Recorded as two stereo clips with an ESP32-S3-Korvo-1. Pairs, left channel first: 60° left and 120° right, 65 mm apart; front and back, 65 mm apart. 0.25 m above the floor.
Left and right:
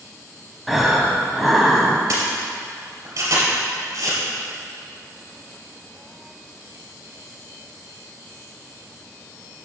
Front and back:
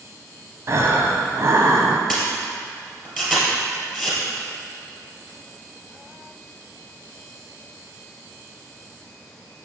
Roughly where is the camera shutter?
Right.